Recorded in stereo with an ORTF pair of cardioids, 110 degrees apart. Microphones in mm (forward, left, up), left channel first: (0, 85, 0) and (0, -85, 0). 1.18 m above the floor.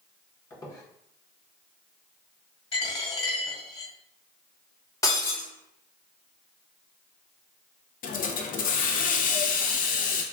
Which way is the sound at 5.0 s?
20° left.